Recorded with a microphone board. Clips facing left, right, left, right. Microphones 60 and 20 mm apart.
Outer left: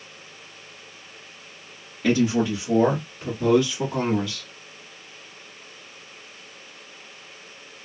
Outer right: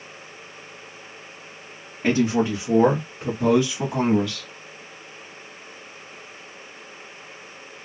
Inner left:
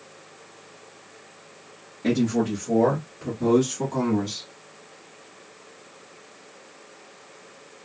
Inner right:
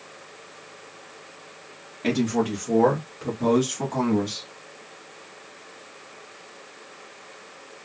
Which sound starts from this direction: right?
A man speaking, at 2.0 s.